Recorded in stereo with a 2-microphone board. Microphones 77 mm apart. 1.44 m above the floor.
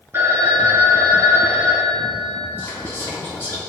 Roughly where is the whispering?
Left.